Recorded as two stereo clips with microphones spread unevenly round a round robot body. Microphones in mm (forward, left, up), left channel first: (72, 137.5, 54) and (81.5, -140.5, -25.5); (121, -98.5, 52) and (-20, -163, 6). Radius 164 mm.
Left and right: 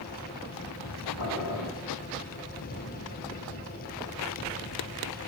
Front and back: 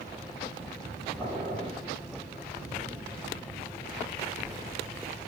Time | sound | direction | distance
1.2 | boiling | 105° left | 3 m